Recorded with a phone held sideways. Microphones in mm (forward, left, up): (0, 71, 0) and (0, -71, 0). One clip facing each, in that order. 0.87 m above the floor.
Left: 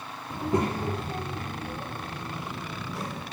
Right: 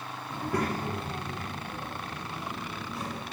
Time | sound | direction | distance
0.3 | a child speaking | 15° left (ahead or behind) | 0.7 m